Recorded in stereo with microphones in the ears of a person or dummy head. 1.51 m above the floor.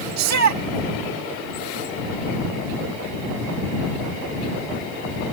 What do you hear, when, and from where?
0.2 s a shout: 90° right